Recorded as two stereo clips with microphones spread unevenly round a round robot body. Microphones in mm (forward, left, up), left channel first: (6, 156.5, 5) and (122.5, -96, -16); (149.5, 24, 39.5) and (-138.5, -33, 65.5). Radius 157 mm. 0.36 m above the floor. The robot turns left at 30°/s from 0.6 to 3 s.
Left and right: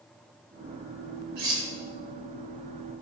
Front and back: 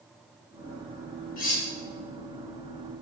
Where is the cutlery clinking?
45° right, 1.0 m; by 1.7 s 55° right, 1.0 m.